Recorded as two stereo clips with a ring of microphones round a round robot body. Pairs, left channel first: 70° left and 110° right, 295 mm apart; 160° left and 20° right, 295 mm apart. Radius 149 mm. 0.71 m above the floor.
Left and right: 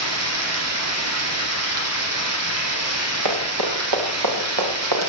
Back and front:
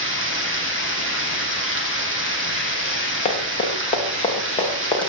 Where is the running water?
70° right, 7.5 m.